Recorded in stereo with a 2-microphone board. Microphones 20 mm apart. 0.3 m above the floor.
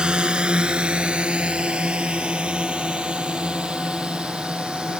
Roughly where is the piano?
I don't hear a piano.